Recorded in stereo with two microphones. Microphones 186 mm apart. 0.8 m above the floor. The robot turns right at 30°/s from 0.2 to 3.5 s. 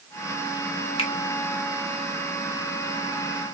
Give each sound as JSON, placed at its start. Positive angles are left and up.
{"t": 1.0, "sound": "a finger snap", "side_deg": 30, "distance_m": 1.1}